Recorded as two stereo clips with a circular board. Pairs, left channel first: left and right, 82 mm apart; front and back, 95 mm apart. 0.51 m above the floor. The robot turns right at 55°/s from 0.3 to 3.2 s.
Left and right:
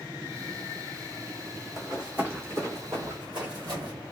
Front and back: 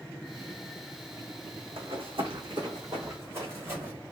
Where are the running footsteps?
Straight behind, 1.9 m; by 3.9 s 125° right, 2.5 m.